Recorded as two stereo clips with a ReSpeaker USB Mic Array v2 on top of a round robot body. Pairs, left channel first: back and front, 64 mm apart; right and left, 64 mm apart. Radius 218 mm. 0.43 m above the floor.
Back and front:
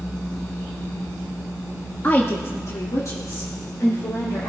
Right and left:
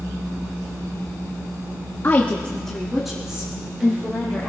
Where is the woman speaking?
130° right, 1.6 m; by 4.5 s 160° left, 4 m.